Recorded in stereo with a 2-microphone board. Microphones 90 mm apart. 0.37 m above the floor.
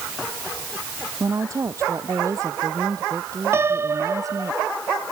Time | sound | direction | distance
1.2 | a woman speaking | 35° right (ahead or behind) | ?
3.5 | a piano | 30° right (ahead or behind) | ?